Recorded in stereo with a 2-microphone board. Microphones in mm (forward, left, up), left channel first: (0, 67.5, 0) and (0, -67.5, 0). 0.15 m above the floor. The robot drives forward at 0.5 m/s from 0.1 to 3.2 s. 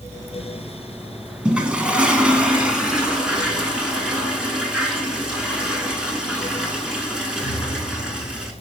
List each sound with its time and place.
1.4 s a toilet flushing: 5° right (ahead or behind), 0.6 m